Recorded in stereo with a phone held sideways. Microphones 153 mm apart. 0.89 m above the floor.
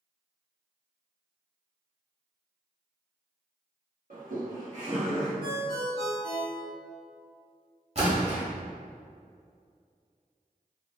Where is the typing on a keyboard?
No typing on a keyboard in this recording.